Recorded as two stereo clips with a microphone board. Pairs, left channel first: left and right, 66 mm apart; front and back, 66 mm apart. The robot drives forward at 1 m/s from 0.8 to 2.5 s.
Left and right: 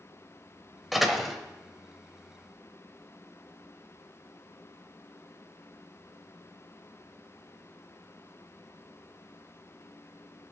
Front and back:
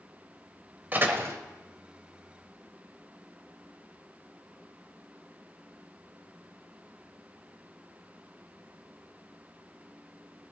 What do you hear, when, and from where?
0.9 s a door slam: 175° right, 1.0 m; by 1.4 s straight behind, 1.2 m